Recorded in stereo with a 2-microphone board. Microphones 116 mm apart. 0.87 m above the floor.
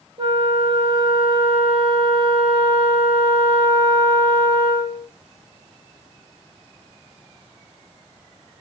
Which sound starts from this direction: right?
A flute, at 0.2 s.